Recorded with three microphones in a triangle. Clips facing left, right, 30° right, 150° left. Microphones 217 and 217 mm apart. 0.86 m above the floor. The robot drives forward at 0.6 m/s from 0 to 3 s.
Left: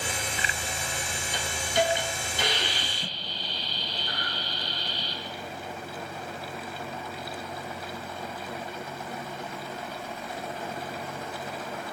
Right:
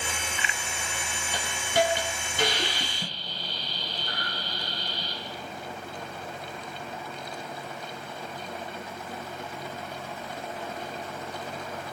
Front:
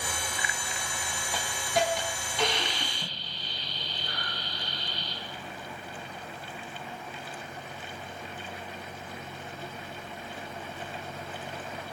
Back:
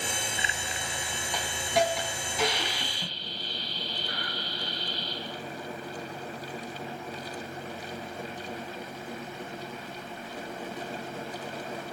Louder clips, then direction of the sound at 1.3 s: Right 1 dB, back 2 dB; 115° right.